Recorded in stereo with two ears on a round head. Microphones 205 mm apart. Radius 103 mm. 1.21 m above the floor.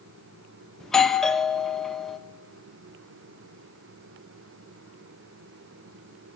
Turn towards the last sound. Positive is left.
turn(degrees=0)  # may be behind; listen again after turning